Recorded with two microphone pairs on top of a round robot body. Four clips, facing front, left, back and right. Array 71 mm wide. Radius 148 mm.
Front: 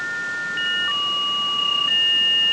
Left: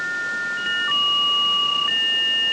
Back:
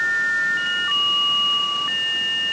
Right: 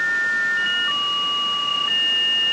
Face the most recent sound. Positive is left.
No sound to turn to.